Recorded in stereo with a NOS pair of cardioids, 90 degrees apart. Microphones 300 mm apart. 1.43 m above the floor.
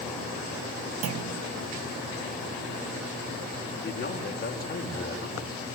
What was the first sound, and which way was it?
A clunk, 55° right.